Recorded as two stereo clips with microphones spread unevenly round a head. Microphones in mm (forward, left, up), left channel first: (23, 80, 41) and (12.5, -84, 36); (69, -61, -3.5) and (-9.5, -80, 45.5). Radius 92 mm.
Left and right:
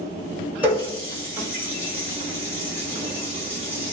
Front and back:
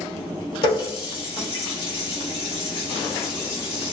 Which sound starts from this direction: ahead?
A running tap, at 0.6 s.